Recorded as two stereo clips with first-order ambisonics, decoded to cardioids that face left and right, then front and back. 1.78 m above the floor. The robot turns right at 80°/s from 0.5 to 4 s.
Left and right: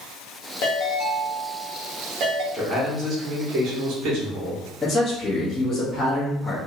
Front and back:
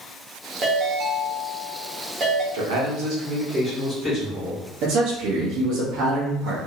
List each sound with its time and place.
0.6 s a ringtone: 120° left, 1.1 m; by 2.4 s 95° right, 1.1 m
2.5 s a man speaking: 170° left, 1.3 m; by 4.6 s 75° right, 1.3 m
4.8 s a man speaking: 170° left, 0.8 m